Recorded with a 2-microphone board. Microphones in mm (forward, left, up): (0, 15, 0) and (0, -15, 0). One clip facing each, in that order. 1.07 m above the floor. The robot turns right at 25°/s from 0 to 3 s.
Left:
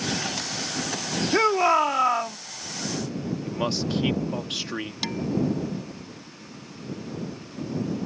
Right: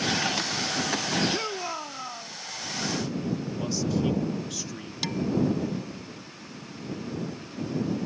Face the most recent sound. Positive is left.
turn(degrees=10)  # may be behind; listen again after turning